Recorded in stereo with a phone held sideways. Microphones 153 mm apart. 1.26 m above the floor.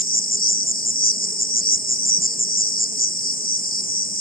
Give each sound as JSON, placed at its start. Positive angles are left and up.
{"t": 0.0, "sound": "an insect", "side_deg": 70}